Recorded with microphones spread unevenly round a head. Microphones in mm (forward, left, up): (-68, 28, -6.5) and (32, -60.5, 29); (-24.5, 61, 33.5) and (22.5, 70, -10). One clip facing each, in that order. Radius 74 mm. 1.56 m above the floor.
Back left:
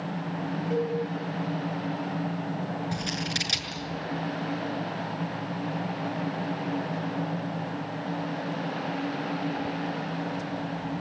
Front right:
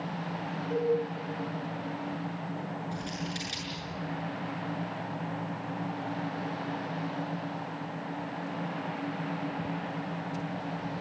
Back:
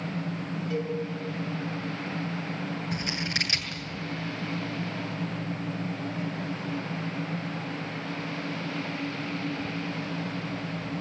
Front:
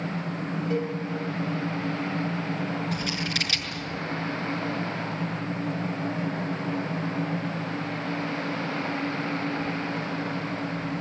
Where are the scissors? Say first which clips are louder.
Back left 4 dB, front 2 dB; 150° left, 7 m.